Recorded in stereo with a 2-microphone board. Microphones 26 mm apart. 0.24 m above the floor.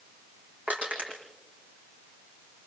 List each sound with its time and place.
0.7 s crushing: 75° right (ahead or behind), 6 m